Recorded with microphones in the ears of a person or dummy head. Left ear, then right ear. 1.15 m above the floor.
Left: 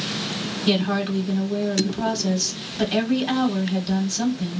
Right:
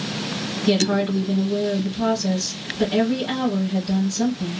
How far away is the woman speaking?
About 1.2 m.